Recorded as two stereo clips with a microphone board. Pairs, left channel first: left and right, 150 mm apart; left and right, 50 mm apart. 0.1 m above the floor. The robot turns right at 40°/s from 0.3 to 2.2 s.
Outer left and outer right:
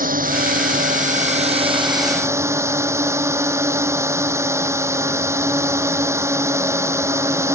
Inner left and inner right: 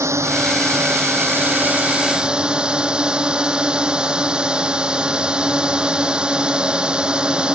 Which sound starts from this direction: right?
A drone, at 0.0 s.